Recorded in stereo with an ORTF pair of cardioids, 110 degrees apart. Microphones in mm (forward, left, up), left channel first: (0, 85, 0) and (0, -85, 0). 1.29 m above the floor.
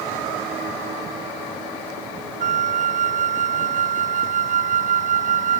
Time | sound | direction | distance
2.4 | a flute | 50° right | ?